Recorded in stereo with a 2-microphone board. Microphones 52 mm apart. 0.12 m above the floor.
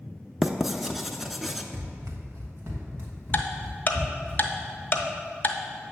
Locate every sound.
0.4 s writing: 5° right (ahead or behind), 0.5 m
1.7 s running footsteps: 85° right, 1.0 m; by 4.3 s 40° right (ahead or behind), 4.5 m
3.3 s ticking: 35° left (ahead or behind), 0.7 m